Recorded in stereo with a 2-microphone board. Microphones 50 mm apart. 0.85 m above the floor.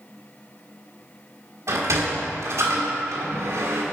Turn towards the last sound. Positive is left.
turn(degrees=-75)  # may be behind; listen again after turning